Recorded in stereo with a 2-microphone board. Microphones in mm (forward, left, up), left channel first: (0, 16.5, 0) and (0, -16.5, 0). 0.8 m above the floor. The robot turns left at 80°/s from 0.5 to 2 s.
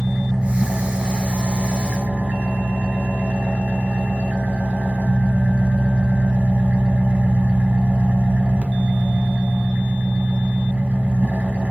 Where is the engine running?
10° right, 1.5 m; by 11.7 s 130° right, 1.5 m.